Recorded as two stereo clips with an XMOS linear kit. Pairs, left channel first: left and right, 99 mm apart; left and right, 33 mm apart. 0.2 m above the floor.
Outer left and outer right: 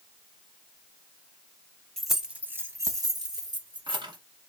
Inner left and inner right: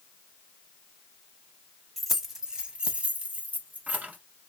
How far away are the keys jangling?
About 0.7 m.